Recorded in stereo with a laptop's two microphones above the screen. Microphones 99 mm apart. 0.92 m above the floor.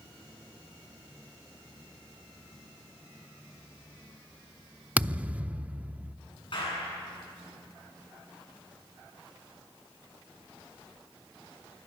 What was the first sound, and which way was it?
A thud, 15° right (ahead or behind).